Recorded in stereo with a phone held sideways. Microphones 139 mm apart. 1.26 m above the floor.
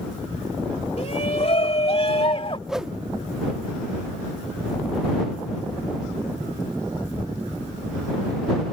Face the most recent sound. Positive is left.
turn(degrees=-5)  # may be behind; listen again after turning